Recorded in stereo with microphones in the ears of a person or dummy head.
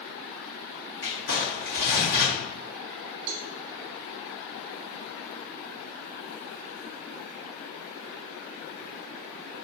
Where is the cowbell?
70° right (ahead or behind), 0.6 m.